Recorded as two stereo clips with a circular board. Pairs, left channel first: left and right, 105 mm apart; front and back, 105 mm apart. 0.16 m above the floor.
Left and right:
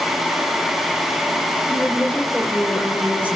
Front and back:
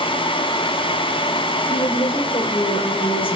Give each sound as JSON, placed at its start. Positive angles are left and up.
{"t": 1.7, "sound": "a woman speaking", "azimuth_deg": -15, "distance_m": 3.0}